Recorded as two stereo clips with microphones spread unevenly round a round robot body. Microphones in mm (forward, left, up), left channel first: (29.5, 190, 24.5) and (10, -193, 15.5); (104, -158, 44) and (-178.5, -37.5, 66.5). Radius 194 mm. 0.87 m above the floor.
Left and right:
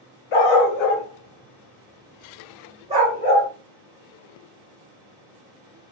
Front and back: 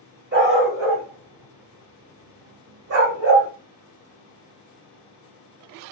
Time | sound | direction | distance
0.3 | a dog barking | 95° left | 1.2 m